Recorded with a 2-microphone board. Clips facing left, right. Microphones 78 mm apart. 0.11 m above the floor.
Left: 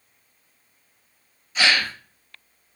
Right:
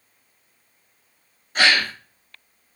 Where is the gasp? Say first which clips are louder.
Right 2 dB; 55° right (ahead or behind), 0.8 m.